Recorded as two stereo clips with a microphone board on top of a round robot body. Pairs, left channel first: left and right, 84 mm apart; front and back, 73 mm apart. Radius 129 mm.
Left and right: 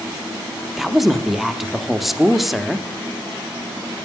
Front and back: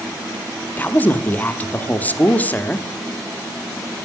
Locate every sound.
0.8 s a woman speaking: 5° right, 0.8 m